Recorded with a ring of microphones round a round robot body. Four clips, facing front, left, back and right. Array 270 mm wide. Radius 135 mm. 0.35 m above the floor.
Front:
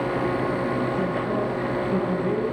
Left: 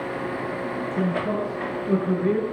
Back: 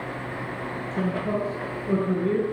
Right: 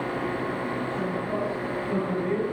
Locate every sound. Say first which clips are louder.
0.9 s a man speaking: left 4 dB, front 2 dB; 140° left, 8.5 m; by 2.5 s 125° left, 7 m